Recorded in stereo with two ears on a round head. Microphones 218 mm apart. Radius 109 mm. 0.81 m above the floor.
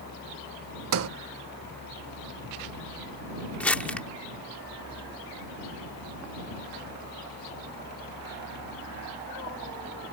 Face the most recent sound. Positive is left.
turn(degrees=5)  # may be behind; listen again after turning